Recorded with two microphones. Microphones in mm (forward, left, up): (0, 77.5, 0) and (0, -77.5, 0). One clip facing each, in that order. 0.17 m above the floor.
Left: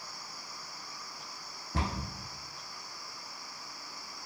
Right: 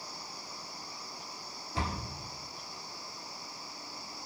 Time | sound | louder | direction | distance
1.7 | a cupboard door | left 1 dB | 70° left (ahead or behind) | 0.8 m